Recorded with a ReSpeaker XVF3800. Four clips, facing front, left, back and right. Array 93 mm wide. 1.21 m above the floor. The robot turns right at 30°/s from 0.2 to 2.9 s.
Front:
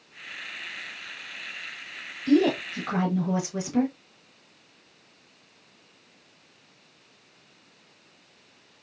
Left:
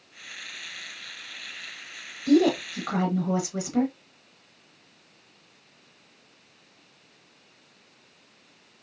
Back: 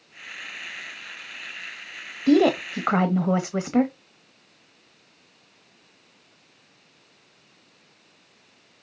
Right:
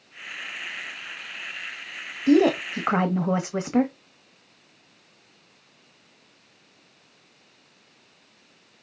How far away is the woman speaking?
About 0.9 m.